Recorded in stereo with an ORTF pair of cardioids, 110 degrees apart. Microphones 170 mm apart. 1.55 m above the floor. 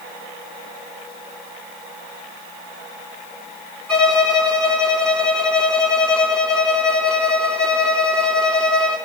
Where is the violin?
5° left, 4 m.